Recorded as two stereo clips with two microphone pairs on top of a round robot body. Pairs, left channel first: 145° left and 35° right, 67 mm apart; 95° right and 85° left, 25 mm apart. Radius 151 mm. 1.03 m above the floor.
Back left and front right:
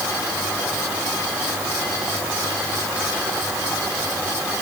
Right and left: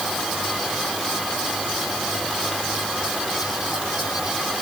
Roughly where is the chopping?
I don't hear chopping.